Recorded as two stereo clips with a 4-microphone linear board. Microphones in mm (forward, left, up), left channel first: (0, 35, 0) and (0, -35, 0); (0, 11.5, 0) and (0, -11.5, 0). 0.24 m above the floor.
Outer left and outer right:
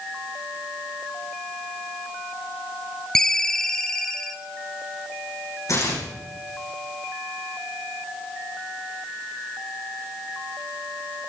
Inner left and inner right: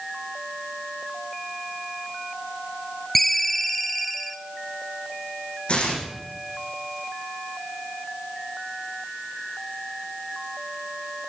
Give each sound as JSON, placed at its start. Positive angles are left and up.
{"t": 3.1, "sound": "a ringtone", "side_deg": 10, "distance_m": 0.9}
{"t": 5.7, "sound": "tearing paper", "side_deg": 55, "distance_m": 8.0}